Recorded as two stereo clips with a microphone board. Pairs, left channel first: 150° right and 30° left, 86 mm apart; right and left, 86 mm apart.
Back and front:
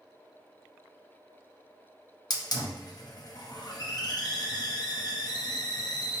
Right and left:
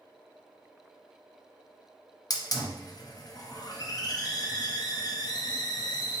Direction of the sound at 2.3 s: 125° right.